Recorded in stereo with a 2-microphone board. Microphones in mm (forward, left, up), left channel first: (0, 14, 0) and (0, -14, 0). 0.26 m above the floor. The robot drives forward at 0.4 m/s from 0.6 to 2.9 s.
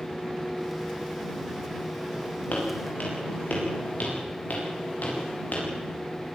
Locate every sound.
2.5 s footsteps: 65° left (ahead or behind), 10 m; by 5.7 s 80° left, 10.5 m